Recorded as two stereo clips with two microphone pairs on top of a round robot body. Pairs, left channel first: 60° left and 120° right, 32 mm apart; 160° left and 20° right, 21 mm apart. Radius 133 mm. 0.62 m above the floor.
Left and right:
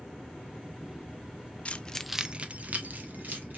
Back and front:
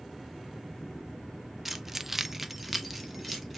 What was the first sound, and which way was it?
Keys jangling, 65° left.